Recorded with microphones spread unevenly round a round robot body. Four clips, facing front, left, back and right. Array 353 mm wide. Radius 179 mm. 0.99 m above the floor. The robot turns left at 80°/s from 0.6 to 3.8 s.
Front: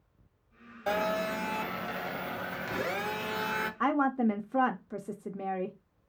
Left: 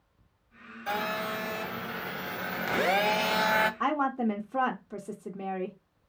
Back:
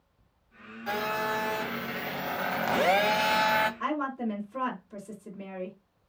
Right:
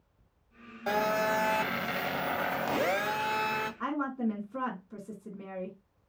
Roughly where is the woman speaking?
Ahead left.